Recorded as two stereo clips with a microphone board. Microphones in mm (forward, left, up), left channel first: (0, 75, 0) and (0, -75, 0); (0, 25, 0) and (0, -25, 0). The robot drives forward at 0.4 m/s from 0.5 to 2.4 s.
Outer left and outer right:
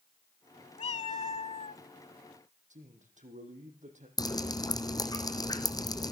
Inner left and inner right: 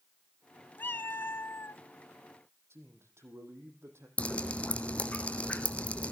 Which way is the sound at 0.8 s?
40° left (ahead or behind).